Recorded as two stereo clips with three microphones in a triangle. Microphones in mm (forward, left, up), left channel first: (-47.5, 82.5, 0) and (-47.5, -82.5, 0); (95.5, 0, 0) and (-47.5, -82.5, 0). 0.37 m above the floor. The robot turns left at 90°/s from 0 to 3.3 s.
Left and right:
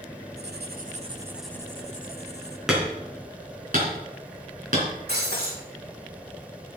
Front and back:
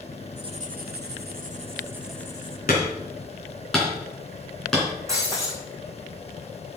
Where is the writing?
85° right, 0.8 m; by 2.6 s 75° left, 0.8 m.